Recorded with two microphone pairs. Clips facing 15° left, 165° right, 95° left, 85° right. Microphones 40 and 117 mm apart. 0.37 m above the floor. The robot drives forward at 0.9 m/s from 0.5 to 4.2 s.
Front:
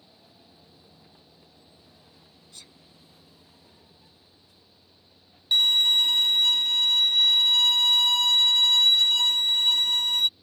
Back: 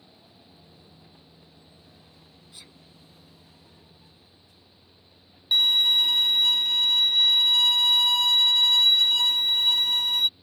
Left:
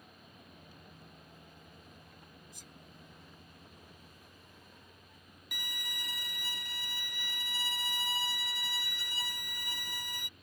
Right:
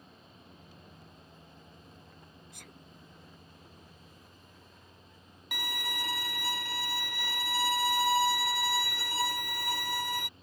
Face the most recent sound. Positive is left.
turn(degrees=-85)